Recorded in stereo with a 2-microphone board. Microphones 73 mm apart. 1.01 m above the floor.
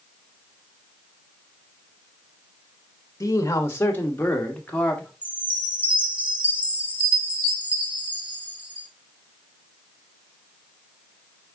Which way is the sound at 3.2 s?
45° left (ahead or behind).